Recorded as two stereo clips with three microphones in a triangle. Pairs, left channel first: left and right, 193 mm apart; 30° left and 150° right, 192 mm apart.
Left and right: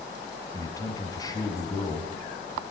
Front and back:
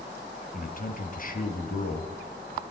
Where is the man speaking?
25° left, 1.9 m.